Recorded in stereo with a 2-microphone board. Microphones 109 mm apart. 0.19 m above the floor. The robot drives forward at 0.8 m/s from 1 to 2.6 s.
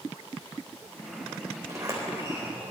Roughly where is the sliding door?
Right.